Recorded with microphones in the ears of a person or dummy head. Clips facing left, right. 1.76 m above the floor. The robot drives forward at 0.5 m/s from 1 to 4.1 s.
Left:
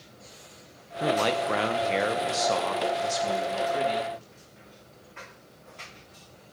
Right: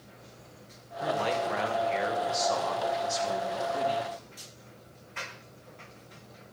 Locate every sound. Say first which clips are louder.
1.0 s a man speaking: left 4 dB; 60° left (ahead or behind), 1.1 m; by 4.1 s 30° left (ahead or behind), 1.9 m